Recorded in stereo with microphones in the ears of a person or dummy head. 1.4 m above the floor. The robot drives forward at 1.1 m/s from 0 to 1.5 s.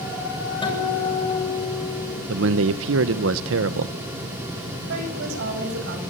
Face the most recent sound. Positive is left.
turn(degrees=-65)  # may be behind; listen again after turning